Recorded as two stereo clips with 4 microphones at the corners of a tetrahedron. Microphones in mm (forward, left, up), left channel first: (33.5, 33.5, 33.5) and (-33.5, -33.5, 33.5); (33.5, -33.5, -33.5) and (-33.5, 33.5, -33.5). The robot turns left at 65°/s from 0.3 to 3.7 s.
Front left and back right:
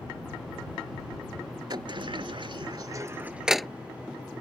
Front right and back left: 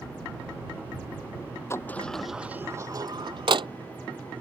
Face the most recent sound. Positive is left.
turn(degrees=130)